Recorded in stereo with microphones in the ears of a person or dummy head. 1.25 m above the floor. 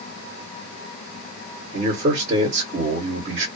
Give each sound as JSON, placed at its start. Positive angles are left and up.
{"t": 1.7, "sound": "a man speaking", "side_deg": -45, "distance_m": 1.7}